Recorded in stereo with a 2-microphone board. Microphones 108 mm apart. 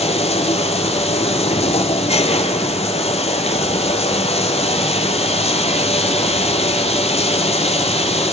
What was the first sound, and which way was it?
Running water, 80° left.